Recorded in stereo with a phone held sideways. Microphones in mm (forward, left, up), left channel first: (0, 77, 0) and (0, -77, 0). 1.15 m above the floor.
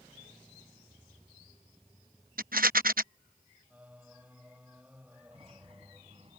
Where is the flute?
No flute in this recording.